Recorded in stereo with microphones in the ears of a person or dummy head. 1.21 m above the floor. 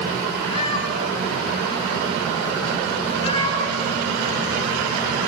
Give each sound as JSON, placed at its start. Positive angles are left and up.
{"t": 0.5, "sound": "a cat meowing", "side_deg": 35, "distance_m": 8.0}